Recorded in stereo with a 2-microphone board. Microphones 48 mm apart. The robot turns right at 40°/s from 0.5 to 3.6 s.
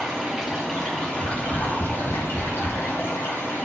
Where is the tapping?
50° left (ahead or behind), 1.5 m; by 2.8 s 65° left (ahead or behind), 1.5 m.